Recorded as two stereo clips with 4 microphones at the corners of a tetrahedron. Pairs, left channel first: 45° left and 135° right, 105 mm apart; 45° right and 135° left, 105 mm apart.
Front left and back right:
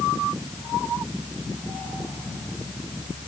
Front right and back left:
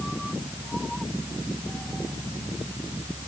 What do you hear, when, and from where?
Only background noise.